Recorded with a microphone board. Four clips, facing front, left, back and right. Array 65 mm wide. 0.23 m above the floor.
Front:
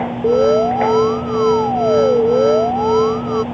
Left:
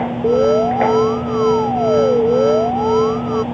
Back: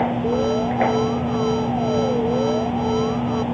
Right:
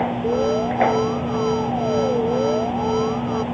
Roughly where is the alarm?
Ahead left.